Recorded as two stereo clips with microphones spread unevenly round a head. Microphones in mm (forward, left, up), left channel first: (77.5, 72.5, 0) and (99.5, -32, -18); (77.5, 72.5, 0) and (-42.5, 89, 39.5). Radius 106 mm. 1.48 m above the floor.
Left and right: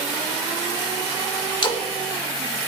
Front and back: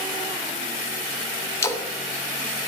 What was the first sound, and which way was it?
A splash, 60° left.